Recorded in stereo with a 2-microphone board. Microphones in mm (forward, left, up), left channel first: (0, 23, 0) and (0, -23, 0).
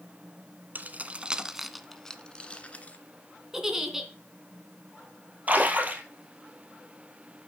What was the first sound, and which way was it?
Keys jangling, 40° right (ahead or behind).